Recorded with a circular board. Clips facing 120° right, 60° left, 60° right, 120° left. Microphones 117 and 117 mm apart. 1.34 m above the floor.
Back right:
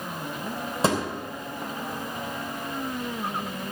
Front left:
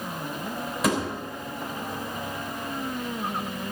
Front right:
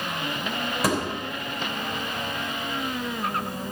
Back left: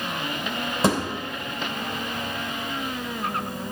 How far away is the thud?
About 3 m.